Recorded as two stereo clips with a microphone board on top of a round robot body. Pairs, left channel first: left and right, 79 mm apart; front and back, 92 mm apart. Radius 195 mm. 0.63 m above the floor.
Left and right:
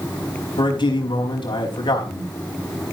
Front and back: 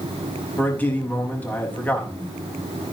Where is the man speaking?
75° left, 4.5 m.